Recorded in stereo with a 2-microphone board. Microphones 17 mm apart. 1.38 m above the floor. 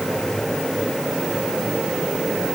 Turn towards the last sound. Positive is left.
No sound to turn to.